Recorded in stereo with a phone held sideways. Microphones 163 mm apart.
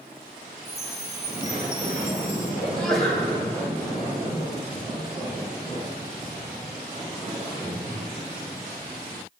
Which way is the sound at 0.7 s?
40° left (ahead or behind).